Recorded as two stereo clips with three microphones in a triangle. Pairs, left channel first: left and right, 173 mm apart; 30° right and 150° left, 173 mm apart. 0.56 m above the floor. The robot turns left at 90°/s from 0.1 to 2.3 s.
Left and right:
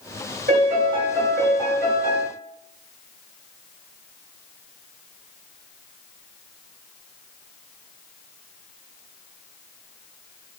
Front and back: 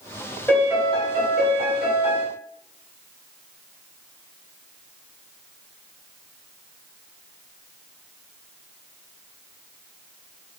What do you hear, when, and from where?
0.5 s a piano: 110° right, 1.1 m; by 2.3 s 90° left, 1.1 m